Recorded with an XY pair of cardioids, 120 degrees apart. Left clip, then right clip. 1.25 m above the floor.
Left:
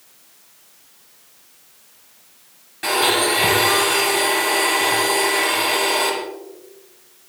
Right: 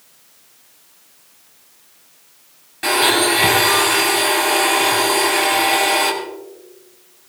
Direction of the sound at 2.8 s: 20° right.